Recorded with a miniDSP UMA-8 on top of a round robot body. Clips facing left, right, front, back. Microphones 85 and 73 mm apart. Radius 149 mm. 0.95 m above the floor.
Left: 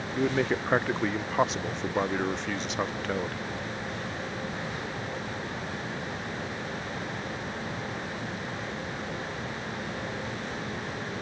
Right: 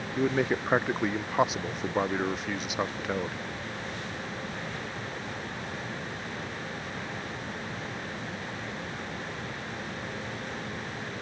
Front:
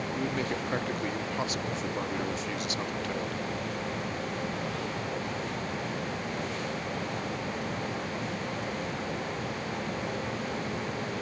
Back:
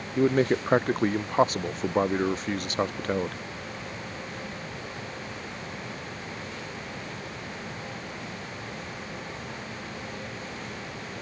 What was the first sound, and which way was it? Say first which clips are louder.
A man speaking: even, back 12 dB; 175° right.